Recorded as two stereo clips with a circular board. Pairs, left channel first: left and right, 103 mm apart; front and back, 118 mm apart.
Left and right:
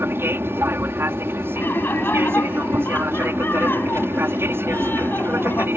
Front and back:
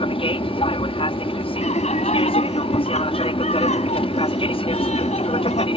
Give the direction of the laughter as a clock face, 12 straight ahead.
11 o'clock.